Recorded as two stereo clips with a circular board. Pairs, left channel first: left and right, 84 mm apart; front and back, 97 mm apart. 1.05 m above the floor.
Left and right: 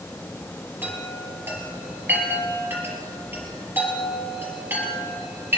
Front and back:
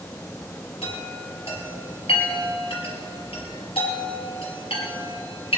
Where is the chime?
25° right, 4.5 m.